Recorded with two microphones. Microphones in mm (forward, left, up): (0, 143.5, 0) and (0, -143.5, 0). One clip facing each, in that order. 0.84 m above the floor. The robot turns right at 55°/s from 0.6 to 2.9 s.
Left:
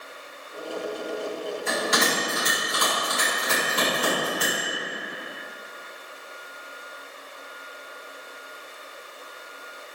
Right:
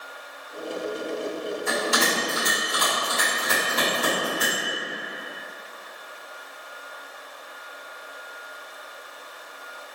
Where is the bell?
85° left, 1.9 m; by 4.6 s 20° left (ahead or behind), 1.9 m.